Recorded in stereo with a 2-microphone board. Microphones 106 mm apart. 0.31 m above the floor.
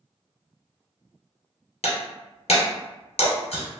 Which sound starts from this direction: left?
Breaking glass, at 1.8 s.